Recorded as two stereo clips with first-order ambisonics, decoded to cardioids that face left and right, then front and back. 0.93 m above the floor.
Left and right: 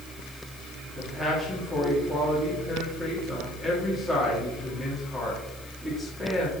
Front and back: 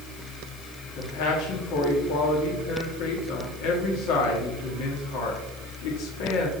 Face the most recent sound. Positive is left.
turn(degrees=0)